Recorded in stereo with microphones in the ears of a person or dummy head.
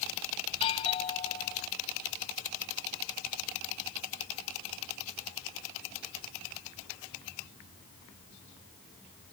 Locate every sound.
0.5 s a doorbell: 30° left (ahead or behind)